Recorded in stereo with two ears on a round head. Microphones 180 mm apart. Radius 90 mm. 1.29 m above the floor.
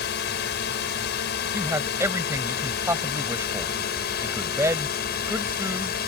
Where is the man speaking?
15° right (ahead or behind).